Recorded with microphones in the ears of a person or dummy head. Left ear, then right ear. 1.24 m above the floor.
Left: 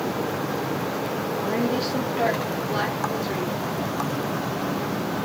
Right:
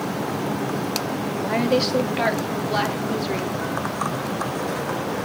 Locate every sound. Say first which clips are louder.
1.4 s a woman speaking: right 6 dB; 40° right (ahead or behind), 2 m; by 3.5 s 25° right (ahead or behind), 4.5 m